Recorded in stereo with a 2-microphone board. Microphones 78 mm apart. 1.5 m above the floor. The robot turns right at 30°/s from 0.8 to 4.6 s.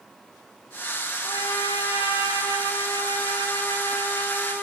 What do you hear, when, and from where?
1.2 s a trumpet: 60° left, 5.5 m; by 4.6 s 160° left, 5.5 m